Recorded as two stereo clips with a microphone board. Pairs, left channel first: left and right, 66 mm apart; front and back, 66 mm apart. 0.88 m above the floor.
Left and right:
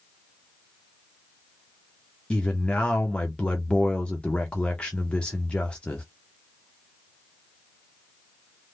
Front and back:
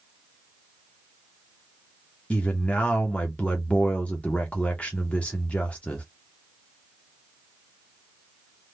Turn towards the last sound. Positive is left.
turn(degrees=40)